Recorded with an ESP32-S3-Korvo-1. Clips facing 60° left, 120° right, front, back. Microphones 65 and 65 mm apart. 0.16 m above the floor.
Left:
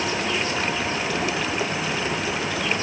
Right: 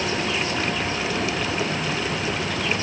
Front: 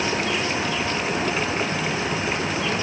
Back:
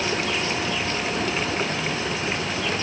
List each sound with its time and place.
Only background noise.